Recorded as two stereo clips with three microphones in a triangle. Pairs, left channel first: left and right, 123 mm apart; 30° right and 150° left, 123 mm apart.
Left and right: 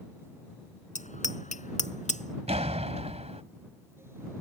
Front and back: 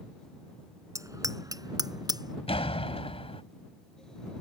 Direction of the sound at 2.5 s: 65° right.